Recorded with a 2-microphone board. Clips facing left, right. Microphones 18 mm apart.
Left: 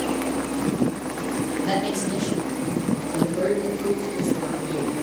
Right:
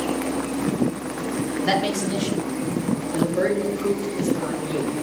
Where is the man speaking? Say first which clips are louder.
Right 4 dB; 65° right (ahead or behind), 2 m; by 4.9 s 75° right (ahead or behind), 4 m.